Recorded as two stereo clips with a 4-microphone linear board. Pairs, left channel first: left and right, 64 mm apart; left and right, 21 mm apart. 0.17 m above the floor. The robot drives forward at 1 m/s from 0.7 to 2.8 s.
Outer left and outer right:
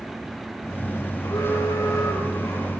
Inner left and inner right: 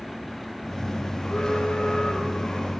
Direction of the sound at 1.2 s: 55° left (ahead or behind).